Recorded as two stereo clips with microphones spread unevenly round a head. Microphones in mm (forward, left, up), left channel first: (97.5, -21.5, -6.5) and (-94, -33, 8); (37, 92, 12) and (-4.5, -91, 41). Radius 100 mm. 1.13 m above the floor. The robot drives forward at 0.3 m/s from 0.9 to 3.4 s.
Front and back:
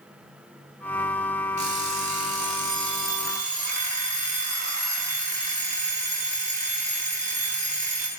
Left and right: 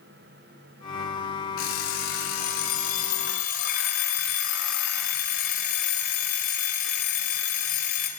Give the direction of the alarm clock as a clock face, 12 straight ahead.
8 o'clock.